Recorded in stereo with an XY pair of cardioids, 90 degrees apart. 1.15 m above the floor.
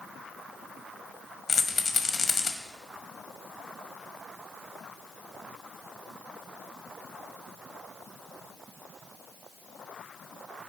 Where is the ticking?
No ticking in this recording.